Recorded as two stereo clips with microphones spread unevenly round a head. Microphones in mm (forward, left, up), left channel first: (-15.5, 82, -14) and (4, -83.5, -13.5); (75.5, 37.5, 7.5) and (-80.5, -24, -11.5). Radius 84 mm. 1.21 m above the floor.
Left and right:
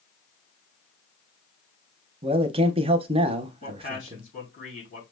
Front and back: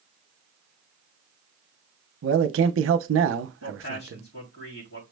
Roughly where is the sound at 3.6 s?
Ahead left.